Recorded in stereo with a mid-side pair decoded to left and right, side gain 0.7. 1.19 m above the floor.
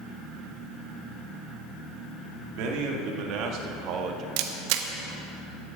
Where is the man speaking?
65° right, 2 m; by 4.3 s 50° right, 1.3 m.